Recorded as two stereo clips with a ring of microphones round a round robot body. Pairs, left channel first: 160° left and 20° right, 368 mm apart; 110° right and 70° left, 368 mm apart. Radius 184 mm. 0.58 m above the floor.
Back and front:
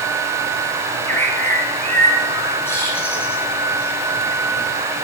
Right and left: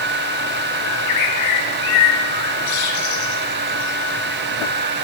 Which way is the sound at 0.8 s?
120° right.